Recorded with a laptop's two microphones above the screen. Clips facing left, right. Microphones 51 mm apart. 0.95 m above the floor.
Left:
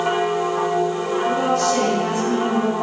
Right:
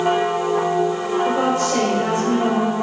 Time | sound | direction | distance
1.2 | a woman speaking | 25° right (ahead or behind) | 4 m